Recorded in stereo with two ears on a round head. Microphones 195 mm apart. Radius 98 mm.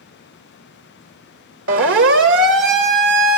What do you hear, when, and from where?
1.7 s a siren: 60° right (ahead or behind), 2 m; by 3.4 s 40° right (ahead or behind), 2.5 m